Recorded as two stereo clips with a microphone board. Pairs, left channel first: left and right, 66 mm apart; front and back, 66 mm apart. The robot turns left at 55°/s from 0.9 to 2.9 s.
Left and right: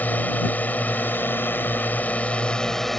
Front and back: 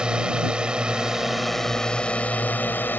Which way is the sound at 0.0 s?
120° left.